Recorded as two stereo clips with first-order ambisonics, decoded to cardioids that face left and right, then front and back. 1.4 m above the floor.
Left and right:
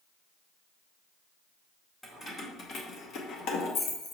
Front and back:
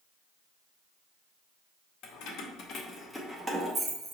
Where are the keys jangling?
10° left, 0.8 m; by 4.1 s 125° left, 0.9 m.